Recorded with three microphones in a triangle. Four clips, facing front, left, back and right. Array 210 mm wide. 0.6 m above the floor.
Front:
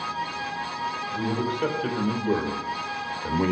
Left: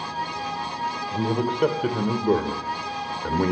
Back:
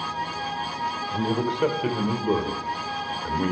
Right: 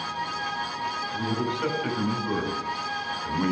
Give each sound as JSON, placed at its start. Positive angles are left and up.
{"t": 1.1, "sound": "a man speaking", "azimuth_deg": 130, "distance_m": 3.0}